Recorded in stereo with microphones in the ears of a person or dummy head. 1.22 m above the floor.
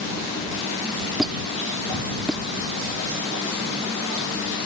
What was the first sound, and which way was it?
A squeak, 5° right (ahead or behind).